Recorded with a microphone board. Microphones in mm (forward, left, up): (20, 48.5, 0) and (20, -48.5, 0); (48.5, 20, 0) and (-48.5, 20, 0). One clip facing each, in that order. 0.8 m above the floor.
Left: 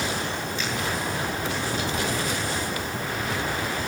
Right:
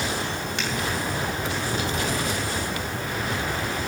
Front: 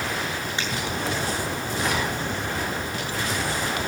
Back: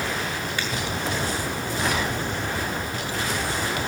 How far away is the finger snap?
About 6.5 m.